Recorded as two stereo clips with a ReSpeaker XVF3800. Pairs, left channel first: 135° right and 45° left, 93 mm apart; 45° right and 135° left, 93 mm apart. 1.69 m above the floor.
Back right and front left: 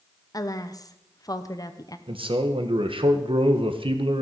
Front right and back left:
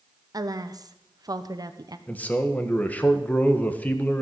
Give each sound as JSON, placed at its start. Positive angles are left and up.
{"t": 0.3, "sound": "a woman speaking", "azimuth_deg": 180, "distance_m": 0.9}
{"t": 2.1, "sound": "a man speaking", "azimuth_deg": 30, "distance_m": 1.5}